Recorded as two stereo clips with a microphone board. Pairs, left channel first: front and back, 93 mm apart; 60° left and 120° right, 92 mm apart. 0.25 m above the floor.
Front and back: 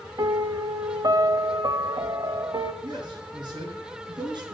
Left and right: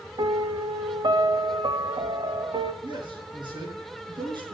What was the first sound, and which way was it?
A piano, 140° right.